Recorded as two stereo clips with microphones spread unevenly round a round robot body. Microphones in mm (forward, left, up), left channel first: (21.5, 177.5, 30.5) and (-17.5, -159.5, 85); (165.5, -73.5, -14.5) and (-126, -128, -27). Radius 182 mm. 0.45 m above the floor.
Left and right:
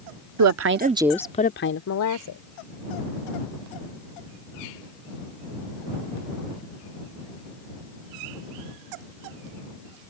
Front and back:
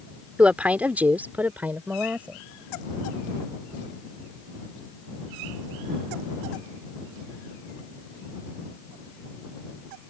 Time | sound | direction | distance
0.4 | a woman speaking | 85° right | ?